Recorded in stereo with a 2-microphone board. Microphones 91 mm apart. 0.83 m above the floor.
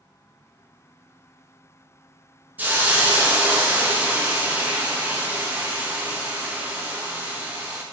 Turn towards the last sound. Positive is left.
turn(degrees=-20)  # may be behind; listen again after turning